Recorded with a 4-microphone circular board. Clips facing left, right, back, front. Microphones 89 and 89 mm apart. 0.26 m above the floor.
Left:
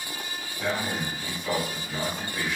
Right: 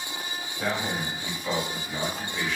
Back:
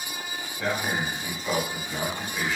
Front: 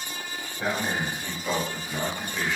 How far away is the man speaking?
About 1.2 m.